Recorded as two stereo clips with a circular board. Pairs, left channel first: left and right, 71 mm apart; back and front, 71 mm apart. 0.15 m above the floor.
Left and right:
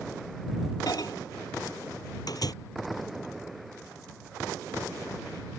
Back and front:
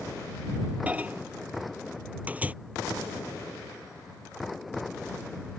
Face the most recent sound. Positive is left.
turn(degrees=70)